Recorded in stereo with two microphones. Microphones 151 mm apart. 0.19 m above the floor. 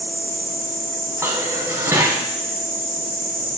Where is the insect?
85° right, 1.7 m.